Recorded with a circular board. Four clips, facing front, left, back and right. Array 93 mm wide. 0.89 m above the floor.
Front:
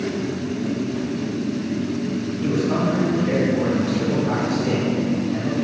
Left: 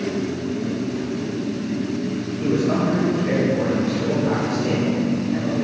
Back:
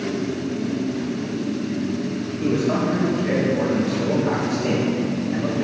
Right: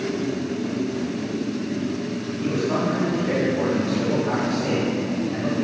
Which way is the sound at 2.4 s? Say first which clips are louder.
Left 3 dB, back 1 dB; 140° left.